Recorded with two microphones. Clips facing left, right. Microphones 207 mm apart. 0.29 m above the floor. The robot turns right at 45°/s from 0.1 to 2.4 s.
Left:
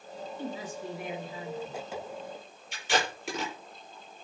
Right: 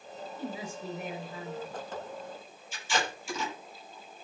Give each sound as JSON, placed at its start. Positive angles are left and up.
{"t": 0.4, "sound": "a woman speaking", "azimuth_deg": -25, "distance_m": 4.5}
{"t": 2.7, "sound": "tape being pulled", "side_deg": 75, "distance_m": 7.5}